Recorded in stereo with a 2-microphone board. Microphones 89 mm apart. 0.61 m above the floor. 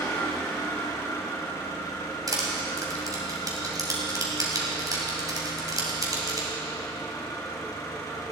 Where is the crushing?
45° right (ahead or behind), 3 m.